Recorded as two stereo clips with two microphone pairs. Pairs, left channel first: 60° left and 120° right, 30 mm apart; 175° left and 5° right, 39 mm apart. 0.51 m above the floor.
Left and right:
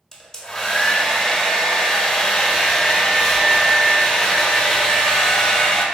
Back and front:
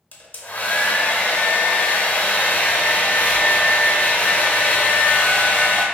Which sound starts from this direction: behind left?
A hair dryer, at 0.1 s.